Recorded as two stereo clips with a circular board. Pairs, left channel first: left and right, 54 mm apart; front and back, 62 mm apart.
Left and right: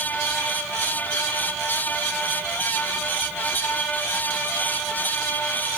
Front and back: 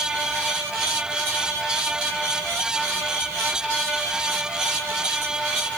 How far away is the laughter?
I don't hear laughter.